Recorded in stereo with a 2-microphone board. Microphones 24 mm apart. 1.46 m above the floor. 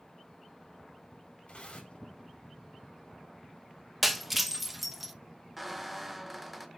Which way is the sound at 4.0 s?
5° right (ahead or behind).